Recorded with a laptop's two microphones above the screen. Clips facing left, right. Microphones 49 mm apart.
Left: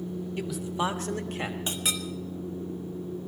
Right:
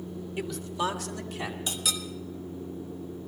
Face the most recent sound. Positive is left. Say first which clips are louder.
# left 1 dB
turn(degrees=30)  # may be behind; listen again after turning